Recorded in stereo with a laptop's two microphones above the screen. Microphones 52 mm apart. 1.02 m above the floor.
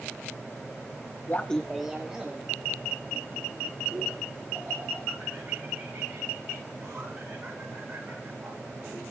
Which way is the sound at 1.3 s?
40° left (ahead or behind).